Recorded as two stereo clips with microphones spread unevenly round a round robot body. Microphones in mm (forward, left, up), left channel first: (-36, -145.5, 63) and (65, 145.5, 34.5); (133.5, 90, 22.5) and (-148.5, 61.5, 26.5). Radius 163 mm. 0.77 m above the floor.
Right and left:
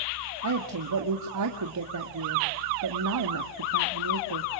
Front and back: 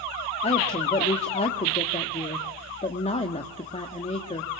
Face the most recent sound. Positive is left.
turn(degrees=70)